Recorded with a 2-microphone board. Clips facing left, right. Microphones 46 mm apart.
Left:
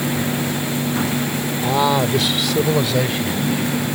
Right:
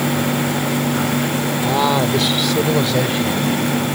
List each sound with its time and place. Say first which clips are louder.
1.6 s a man speaking: even; centre (ahead or behind); by 3.4 s 5° left (ahead or behind)